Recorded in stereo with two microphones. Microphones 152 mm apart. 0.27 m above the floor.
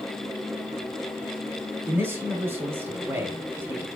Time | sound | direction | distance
1.9 | a man speaking | 15° right (ahead or behind) | 1.1 m